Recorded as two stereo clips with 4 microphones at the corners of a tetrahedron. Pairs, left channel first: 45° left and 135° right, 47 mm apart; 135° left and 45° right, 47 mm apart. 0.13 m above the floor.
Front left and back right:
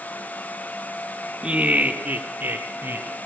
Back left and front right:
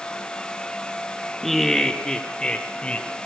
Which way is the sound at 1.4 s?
150° right.